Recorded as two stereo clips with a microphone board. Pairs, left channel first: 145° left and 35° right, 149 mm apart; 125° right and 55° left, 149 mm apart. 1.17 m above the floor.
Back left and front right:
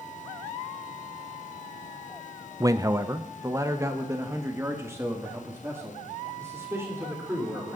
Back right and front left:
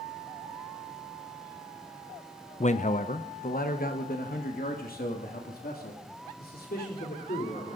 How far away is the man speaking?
About 0.5 m.